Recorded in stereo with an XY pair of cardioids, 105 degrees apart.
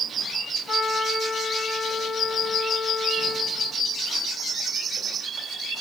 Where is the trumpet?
60° left, 2 m.